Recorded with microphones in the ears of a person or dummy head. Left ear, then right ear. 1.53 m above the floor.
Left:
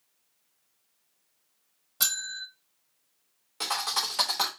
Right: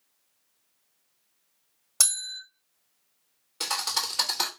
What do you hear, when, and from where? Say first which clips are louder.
2.0 s a bell: right 1 dB; 35° right (ahead or behind), 1.1 m
3.6 s a thud: even; 15° left (ahead or behind), 1.1 m